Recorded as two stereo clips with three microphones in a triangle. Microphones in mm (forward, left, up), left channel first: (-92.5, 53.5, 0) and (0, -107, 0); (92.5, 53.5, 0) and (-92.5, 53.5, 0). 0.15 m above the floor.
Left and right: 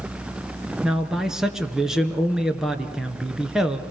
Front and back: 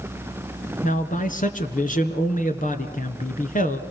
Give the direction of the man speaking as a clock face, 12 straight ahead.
11 o'clock.